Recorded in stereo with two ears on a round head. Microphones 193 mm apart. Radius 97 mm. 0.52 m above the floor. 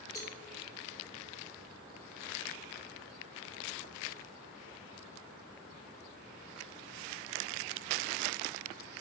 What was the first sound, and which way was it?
A cowbell, 15° left (ahead or behind).